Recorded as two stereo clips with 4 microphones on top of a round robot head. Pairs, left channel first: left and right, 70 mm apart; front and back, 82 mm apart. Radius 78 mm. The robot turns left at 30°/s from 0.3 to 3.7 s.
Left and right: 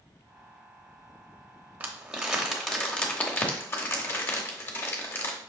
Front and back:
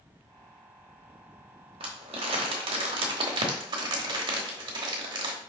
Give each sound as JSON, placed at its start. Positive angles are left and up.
{"t": 1.8, "sound": "crumpling", "azimuth_deg": -155, "distance_m": 0.9}